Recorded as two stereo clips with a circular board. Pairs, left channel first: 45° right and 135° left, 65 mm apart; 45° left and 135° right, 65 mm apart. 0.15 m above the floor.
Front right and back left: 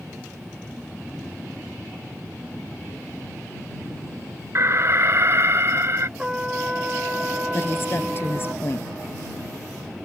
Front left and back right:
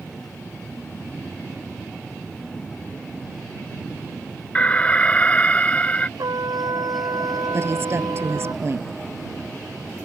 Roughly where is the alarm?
Left.